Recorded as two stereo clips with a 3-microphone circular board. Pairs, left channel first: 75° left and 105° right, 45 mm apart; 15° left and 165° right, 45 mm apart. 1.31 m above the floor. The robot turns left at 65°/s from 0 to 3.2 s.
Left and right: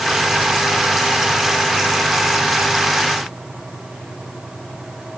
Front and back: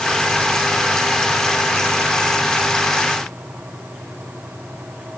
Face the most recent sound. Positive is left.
No sound to turn to.